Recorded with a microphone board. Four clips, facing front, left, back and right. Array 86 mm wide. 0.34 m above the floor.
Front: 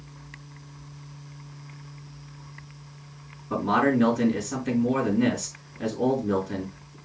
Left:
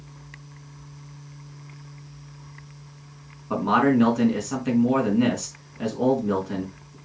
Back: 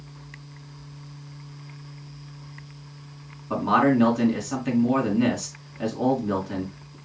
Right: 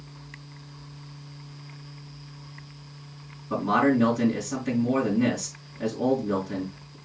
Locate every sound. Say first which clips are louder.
3.5 s a man speaking: left 2 dB, back 2 dB; 125° left, 4 m